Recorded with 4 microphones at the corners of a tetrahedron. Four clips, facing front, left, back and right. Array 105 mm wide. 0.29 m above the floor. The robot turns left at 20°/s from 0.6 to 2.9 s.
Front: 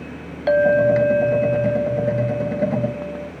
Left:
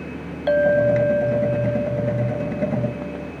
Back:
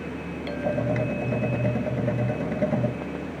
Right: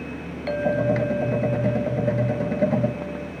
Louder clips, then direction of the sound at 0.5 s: Left 6 dB, front 13 dB; 25° left.